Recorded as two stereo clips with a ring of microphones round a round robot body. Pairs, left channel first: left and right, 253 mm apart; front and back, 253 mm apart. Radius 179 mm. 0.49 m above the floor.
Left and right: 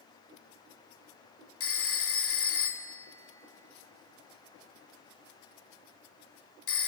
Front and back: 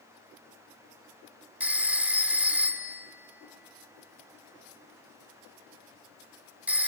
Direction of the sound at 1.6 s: 95° left.